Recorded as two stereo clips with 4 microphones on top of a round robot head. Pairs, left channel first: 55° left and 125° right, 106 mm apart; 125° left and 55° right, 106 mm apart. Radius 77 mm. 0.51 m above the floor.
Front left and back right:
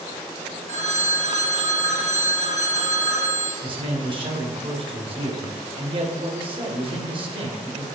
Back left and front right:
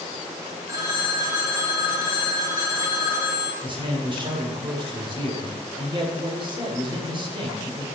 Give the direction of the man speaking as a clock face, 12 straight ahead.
3 o'clock.